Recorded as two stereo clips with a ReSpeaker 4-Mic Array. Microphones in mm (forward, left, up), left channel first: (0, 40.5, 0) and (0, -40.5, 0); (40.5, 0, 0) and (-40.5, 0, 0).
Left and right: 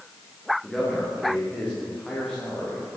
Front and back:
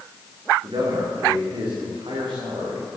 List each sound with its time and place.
0.6 s a man speaking: 170° left, 9.5 m